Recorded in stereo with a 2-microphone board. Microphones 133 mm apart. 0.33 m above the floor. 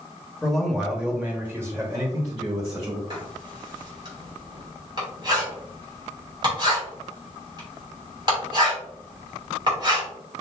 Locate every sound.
0.4 s a man speaking: 5° left (ahead or behind), 1.5 m; by 3.0 s 35° right (ahead or behind), 2 m
3.1 s writing: 35° right (ahead or behind), 2.5 m